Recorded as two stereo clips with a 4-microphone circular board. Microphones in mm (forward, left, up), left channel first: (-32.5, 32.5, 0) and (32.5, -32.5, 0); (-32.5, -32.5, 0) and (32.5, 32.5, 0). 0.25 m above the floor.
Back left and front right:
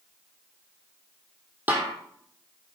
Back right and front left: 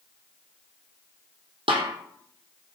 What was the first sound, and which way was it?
A snare drum, 25° left.